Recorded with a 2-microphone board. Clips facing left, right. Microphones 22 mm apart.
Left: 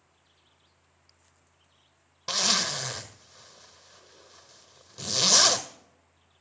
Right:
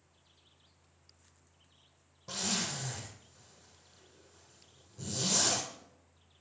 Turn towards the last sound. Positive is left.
turn(degrees=70)  # may be behind; listen again after turning